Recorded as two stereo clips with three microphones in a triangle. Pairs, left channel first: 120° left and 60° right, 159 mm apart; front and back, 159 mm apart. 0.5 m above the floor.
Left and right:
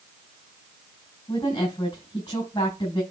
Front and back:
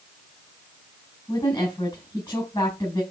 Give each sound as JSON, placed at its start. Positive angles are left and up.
{"t": 1.3, "sound": "a woman speaking", "azimuth_deg": 60, "distance_m": 4.5}